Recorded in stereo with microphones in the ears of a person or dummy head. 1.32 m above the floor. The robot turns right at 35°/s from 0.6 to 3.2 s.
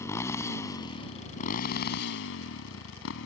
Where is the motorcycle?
20° left; by 3.3 s 110° left.